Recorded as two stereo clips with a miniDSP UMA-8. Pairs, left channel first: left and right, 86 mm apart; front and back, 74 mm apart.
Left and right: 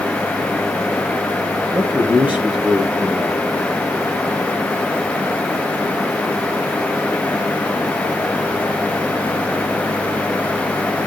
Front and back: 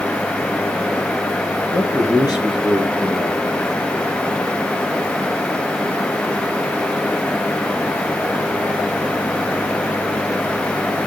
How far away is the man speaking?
About 5.5 m.